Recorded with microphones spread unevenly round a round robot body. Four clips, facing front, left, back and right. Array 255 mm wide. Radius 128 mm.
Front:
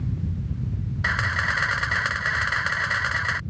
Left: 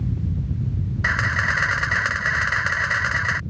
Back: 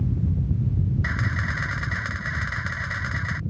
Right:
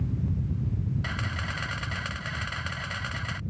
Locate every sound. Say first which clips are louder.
1.0 s a camera shutter: left 11 dB, front 3 dB; 40° left